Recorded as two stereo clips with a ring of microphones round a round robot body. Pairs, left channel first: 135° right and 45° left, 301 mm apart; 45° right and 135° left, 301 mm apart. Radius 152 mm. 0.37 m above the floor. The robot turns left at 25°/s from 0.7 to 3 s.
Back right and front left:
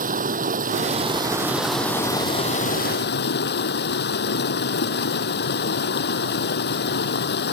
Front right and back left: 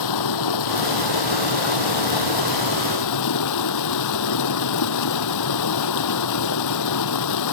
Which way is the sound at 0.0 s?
20° right.